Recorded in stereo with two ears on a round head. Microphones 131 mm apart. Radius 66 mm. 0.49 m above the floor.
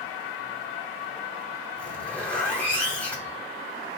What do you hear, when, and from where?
1.8 s a zipper: 10° left (ahead or behind), 1.0 m